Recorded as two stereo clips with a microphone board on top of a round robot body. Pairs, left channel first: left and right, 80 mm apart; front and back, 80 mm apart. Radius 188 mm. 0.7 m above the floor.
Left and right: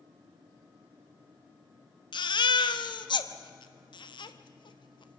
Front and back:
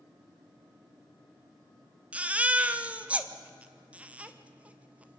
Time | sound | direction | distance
2.1 | a baby crying | 105° left | 1.2 m